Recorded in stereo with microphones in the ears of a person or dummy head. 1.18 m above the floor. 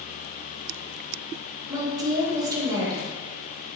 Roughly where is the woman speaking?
Centre.